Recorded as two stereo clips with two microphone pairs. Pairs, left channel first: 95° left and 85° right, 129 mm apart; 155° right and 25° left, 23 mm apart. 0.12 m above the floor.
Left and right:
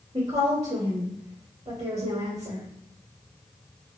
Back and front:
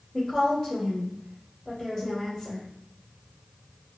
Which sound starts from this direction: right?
A woman speaking, at 0.1 s.